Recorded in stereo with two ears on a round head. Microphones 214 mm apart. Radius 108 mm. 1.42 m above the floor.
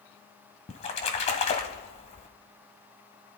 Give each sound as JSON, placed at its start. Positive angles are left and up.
{"t": 0.7, "sound": "a splash", "side_deg": 25, "distance_m": 1.8}